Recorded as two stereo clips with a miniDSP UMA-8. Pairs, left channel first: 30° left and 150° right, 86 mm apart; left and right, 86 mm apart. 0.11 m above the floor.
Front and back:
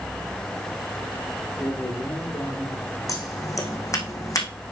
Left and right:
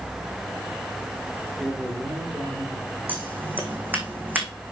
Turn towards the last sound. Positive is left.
turn(degrees=-20)